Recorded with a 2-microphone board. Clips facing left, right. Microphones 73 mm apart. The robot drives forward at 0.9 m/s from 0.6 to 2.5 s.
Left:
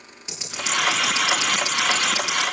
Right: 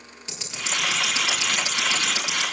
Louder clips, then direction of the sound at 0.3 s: Left 4 dB; 15° left (ahead or behind).